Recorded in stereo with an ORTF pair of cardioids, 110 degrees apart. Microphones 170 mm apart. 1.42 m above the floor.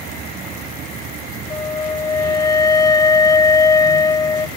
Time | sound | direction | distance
0.0 | a vehicle | 60° right | ?
1.5 | a flute | 20° left | ?